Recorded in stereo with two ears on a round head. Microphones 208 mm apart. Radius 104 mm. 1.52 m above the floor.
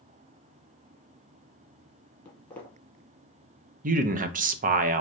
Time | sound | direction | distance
2.2 | footsteps | 10° left (ahead or behind) | 1.6 m
3.8 | a man speaking | 35° right (ahead or behind) | 0.6 m